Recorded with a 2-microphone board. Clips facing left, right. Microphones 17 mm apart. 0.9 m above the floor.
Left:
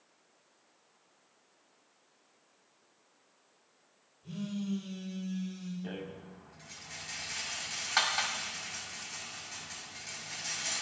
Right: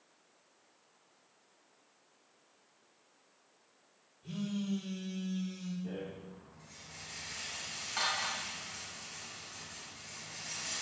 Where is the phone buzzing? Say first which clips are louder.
Even; 20° right (ahead or behind), 7.5 m.